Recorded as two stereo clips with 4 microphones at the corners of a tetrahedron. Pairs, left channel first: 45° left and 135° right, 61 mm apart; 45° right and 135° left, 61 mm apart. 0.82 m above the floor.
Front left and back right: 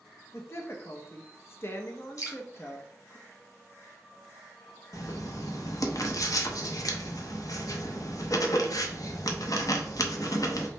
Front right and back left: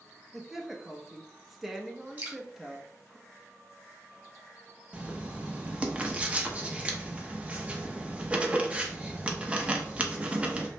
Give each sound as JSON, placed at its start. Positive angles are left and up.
{"t": 0.3, "sound": "a woman speaking", "azimuth_deg": 50, "distance_m": 0.7}
{"t": 2.2, "sound": "dripping", "azimuth_deg": 75, "distance_m": 2.0}
{"t": 4.9, "sound": "writing", "azimuth_deg": 65, "distance_m": 0.7}